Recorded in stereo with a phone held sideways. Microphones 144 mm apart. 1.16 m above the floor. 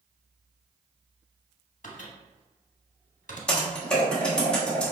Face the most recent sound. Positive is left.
turn(degrees=5)  # may be behind; listen again after turning